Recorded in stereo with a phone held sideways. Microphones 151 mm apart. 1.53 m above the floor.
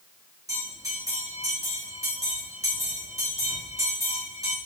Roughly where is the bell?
Right.